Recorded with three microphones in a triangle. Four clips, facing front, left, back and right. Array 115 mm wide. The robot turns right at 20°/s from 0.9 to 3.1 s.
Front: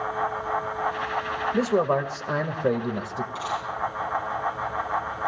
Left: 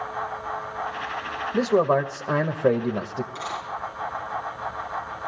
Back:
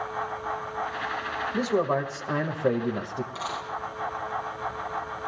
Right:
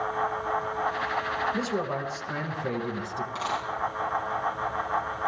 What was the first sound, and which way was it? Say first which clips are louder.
A man speaking: left 9 dB, front 2 dB; 60° left.